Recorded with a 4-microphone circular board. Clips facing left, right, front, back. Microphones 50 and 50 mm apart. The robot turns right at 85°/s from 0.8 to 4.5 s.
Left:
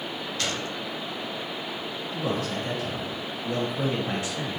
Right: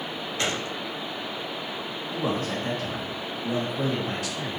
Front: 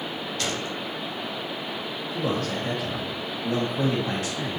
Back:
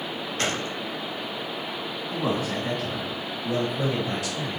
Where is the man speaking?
140° right, 2.5 m; by 4.6 s 60° left, 2.5 m.